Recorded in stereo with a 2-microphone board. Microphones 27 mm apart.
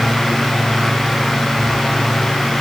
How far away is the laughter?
No laughter in this recording.